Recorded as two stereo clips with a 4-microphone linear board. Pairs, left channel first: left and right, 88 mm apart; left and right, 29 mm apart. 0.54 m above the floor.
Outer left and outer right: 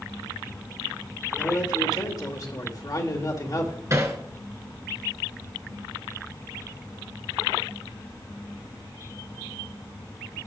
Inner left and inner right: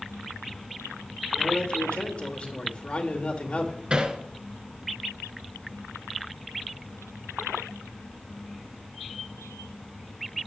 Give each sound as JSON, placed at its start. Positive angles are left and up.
{"t": 1.4, "sound": "a man speaking", "side_deg": 45, "distance_m": 1.8}
{"t": 3.9, "sound": "hammering", "side_deg": -35, "distance_m": 1.8}